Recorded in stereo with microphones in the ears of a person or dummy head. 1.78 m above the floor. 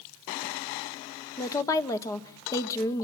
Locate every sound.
1.4 s a woman speaking: 15° left (ahead or behind), 1.4 m